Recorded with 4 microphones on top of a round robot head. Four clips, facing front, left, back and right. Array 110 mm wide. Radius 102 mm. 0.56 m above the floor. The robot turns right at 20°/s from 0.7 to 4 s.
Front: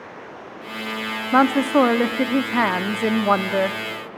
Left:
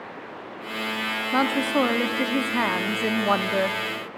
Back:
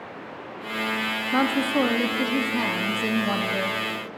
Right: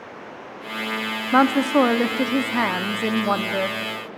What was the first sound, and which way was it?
A woman speaking, 35° right.